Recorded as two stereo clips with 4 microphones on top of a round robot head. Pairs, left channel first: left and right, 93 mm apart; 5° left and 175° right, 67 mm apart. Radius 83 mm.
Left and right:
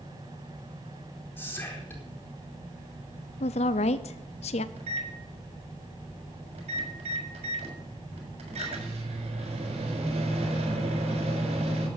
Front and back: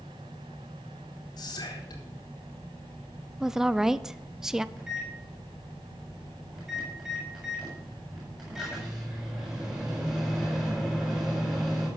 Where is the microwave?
90° right, 6.5 m.